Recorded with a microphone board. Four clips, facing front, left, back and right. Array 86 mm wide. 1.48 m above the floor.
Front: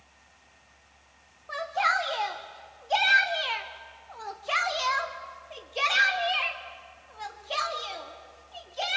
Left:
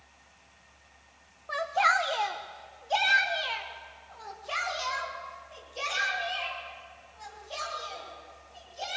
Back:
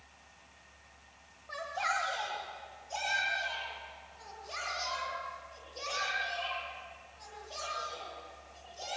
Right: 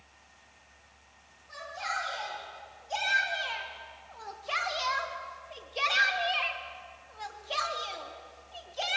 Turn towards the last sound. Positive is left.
turn(degrees=-35)